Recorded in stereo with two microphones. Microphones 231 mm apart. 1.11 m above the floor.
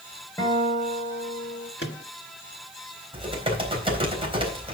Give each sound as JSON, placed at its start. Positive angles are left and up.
{"t": 0.4, "sound": "a guitar", "side_deg": 15, "distance_m": 5.0}
{"t": 1.8, "sound": "a microwave", "side_deg": 50, "distance_m": 1.4}
{"t": 3.1, "sound": "typing on a keyboard", "side_deg": -25, "distance_m": 3.5}